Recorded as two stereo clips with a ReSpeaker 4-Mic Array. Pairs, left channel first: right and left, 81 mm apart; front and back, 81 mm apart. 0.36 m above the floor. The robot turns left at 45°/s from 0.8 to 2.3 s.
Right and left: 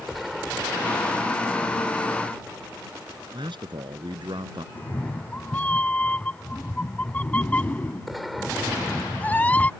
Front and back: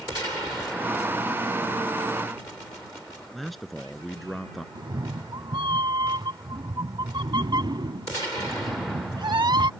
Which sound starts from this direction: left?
A man speaking, at 3.3 s.